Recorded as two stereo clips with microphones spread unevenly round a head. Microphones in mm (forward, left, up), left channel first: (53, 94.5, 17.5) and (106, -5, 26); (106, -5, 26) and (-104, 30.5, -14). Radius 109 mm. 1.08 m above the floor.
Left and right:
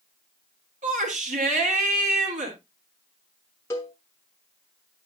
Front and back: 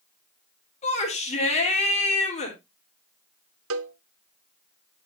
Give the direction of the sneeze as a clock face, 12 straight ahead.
I don't hear a sneeze.